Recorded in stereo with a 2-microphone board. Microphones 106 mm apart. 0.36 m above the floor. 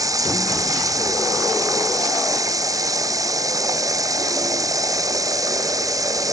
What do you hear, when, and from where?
0.0 s running water: 35° right (ahead or behind)